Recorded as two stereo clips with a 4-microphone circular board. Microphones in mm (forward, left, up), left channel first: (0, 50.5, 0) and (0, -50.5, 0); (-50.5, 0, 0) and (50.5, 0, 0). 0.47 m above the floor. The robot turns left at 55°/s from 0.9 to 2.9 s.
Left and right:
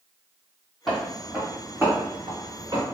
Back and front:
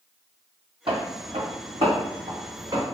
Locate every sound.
0.9 s footsteps: straight ahead, 0.9 m; by 2.9 s 55° right, 1.7 m